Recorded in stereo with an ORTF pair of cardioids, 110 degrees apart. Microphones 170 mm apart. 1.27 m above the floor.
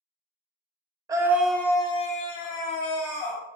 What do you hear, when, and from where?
1.1 s a scream: 20° right, 0.7 m; by 3.4 s 80° left, 1.3 m